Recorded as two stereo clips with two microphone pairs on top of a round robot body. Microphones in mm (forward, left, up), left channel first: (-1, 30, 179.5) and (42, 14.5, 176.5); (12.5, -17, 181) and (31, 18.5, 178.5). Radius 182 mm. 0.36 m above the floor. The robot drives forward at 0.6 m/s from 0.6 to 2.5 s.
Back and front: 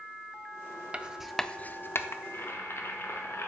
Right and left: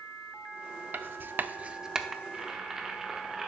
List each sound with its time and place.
0.9 s writing: 40° left, 0.6 m; by 2.1 s 145° left, 0.6 m
2.2 s boiling: 130° left, 0.8 m; by 3.5 s 140° left, 0.9 m